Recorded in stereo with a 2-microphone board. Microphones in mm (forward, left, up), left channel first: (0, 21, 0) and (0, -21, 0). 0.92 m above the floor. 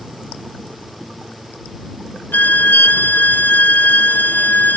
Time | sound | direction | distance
2.3 | a violin | 45° left (ahead or behind) | ?